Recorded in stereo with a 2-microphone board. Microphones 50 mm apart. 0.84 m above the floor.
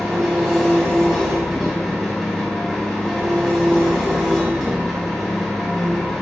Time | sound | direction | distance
0.0 | an engine running | 5° left (ahead or behind) | 0.9 m